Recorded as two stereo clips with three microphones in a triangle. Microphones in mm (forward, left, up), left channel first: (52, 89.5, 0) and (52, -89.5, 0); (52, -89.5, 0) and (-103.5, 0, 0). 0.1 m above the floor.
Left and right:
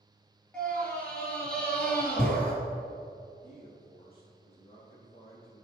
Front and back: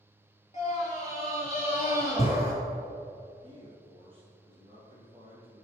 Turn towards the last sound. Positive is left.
turn(degrees=115)